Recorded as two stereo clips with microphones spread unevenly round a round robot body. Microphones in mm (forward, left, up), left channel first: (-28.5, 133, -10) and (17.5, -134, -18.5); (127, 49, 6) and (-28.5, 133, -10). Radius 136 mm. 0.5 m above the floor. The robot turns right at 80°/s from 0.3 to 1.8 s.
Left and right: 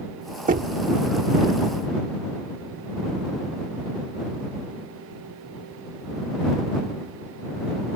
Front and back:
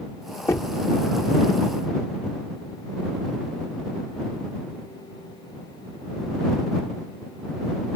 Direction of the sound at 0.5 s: 105° right.